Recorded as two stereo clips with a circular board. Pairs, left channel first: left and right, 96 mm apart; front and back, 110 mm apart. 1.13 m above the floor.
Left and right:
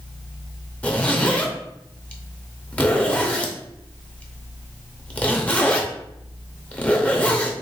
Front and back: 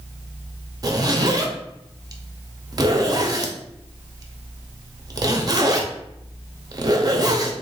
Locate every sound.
0.8 s a zipper: 155° left, 0.6 m